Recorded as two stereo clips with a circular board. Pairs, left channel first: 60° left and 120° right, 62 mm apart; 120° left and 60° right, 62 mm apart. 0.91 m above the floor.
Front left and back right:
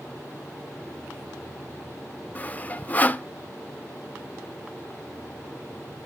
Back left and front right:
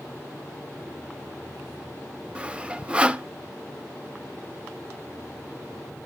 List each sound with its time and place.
2.4 s sawing: 5° left, 0.6 m